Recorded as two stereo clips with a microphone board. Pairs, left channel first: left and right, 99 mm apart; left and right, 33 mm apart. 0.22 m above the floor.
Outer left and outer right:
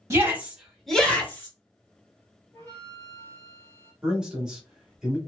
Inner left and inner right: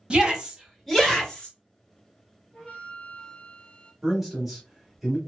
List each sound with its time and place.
0.1 s a shout: 25° right (ahead or behind), 1.1 m; by 1.5 s 25° left (ahead or behind), 1.4 m
2.5 s a flute: 25° left (ahead or behind), 1.7 m
4.0 s a man speaking: 5° right (ahead or behind), 1.2 m